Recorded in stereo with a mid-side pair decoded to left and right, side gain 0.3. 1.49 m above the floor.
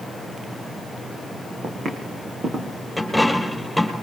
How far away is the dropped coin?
About 5.5 m.